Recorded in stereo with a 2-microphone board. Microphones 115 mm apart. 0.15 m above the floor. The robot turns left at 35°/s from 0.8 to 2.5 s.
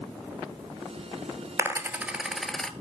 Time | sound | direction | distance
1.6 | a dropped coin | 25° right (ahead or behind) | 1.1 m